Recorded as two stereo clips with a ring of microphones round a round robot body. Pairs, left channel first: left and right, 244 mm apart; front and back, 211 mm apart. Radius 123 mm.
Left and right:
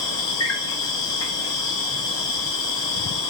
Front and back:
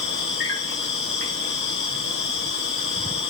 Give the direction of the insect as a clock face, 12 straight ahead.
11 o'clock.